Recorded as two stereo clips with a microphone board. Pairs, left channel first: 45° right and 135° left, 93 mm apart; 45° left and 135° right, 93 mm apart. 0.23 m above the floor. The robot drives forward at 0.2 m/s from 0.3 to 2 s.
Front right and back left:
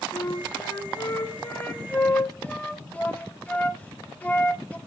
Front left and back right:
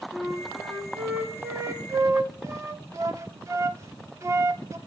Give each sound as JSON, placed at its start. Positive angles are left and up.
{"t": 0.1, "sound": "a flute", "azimuth_deg": -50, "distance_m": 0.6}